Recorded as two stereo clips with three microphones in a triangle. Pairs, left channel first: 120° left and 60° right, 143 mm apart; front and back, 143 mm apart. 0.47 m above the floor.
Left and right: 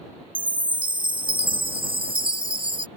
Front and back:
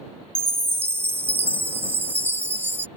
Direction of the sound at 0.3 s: 105° right.